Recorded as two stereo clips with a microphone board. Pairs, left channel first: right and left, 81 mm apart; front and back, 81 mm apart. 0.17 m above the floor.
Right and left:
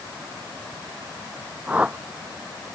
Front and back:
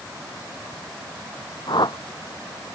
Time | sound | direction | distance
1.7 | a whoosh | 15° left | ?